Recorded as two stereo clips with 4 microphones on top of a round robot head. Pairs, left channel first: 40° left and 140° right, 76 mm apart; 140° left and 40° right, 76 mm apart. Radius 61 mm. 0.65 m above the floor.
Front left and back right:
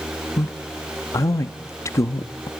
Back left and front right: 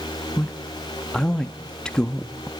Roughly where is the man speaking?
Ahead left.